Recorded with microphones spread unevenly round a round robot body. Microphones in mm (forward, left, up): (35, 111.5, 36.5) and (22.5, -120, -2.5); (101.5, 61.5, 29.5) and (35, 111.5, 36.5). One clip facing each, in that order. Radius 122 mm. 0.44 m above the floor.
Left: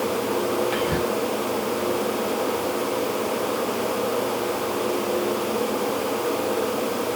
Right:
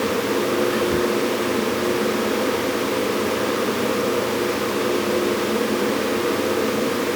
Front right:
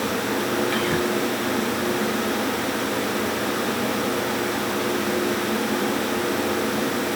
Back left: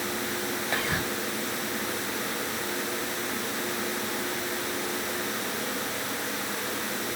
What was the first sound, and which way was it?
Whispering, 70° left.